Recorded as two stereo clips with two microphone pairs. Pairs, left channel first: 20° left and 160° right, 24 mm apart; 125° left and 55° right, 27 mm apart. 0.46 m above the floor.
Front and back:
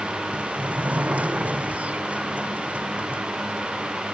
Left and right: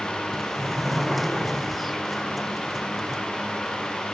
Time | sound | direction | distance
0.3 | a sliding door | 145° right | ?